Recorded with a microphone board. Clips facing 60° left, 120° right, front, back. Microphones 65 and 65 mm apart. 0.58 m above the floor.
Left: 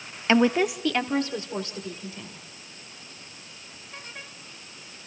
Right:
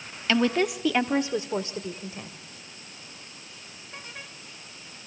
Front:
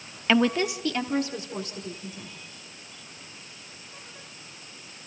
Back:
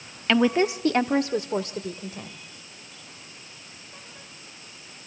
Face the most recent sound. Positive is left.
turn(degrees=180)